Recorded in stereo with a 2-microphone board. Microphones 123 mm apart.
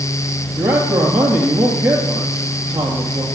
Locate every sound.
0.6 s a man speaking: 20° right (ahead or behind), 3 m